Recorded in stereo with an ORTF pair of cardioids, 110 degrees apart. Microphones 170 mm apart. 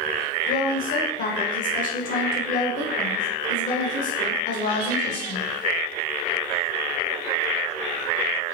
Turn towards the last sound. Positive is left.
turn(degrees=55)